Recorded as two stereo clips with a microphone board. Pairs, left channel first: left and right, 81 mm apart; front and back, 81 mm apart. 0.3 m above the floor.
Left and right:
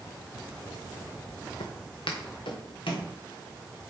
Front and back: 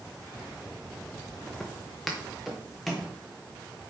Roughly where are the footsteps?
Left.